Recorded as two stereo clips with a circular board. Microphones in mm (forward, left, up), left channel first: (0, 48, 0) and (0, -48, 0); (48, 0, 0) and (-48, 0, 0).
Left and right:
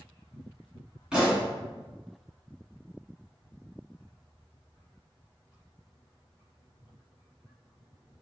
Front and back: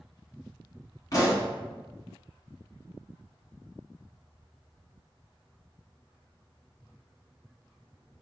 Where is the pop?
15° right, 1.2 m.